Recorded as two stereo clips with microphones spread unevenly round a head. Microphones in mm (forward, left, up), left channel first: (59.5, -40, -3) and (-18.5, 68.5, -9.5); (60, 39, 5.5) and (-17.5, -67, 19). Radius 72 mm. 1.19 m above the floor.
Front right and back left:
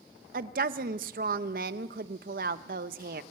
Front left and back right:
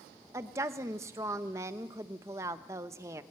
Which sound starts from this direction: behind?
A woman speaking, at 0.3 s.